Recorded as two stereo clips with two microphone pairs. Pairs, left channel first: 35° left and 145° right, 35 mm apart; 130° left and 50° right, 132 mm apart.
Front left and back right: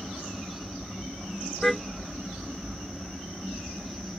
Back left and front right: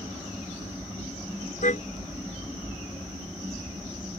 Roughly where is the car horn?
Behind left.